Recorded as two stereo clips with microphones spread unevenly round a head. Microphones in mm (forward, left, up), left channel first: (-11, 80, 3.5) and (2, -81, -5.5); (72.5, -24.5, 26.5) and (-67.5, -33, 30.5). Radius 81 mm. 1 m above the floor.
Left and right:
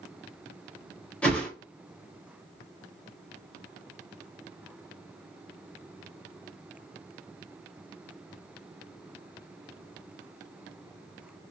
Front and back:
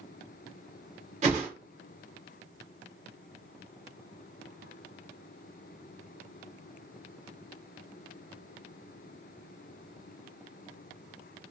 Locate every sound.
1.2 s a whoosh: 175° left, 0.8 m